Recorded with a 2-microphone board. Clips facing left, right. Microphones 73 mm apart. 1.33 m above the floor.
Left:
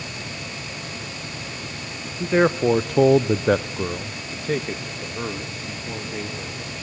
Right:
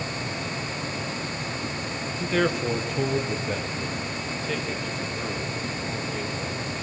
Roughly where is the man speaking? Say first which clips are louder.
Left 6 dB; left.